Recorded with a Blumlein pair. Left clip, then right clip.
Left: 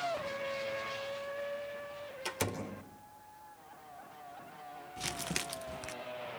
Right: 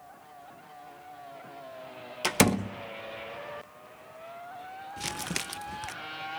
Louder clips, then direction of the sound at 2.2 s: Right 12 dB; 45° right.